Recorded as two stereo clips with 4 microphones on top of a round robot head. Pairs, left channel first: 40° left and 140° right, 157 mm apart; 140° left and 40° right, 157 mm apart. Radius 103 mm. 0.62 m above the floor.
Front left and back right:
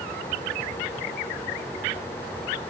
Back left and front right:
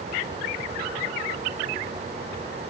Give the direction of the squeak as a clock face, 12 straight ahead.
No squeak in this recording.